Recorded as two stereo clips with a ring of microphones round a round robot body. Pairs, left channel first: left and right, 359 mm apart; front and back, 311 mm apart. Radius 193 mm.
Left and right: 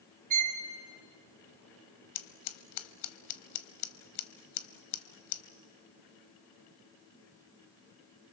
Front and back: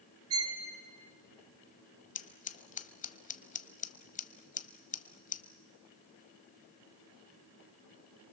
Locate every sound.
0.3 s a violin: 130° right, 1.8 m
2.1 s scissors: 65° left, 0.9 m